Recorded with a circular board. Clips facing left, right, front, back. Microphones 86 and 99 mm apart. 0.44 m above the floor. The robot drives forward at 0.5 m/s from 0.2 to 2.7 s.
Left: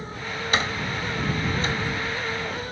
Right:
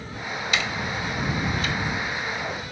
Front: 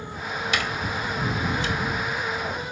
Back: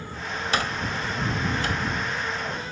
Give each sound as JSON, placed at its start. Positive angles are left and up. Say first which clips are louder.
{"t": 0.5, "sound": "a door slam", "louder": "left 2 dB, back 2 dB", "azimuth_deg": 135}